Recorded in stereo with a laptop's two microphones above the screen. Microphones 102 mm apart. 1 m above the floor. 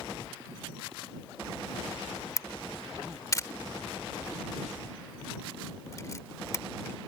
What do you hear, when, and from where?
2.4 s a camera shutter: 30° left (ahead or behind)